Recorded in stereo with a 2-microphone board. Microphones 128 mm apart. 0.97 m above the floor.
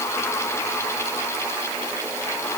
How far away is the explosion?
I don't hear an explosion.